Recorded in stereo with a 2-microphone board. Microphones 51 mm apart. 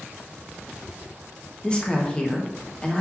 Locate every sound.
1.6 s a woman speaking: 20° left (ahead or behind), 0.7 m